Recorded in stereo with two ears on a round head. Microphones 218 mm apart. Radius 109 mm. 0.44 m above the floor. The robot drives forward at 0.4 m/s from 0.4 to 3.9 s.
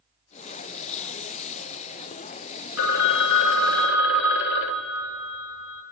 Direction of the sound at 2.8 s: 55° left (ahead or behind).